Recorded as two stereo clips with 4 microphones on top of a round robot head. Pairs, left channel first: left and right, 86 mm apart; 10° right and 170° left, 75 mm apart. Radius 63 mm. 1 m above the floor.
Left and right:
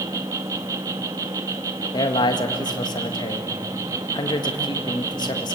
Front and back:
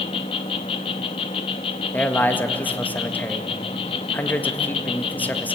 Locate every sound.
0.0 s an insect: 30° right, 0.7 m
1.9 s a man speaking: 55° left, 1.7 m